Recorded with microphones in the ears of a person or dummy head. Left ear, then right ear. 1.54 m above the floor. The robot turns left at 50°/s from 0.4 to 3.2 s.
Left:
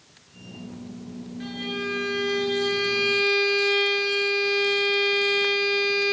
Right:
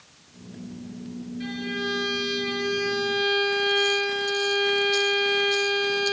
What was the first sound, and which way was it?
A violin, 150° left.